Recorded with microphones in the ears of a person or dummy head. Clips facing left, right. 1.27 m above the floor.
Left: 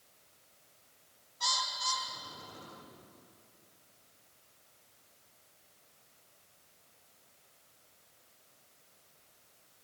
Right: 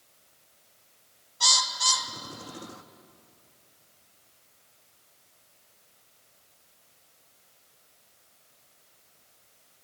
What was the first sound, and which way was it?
A bird, 70° right (ahead or behind).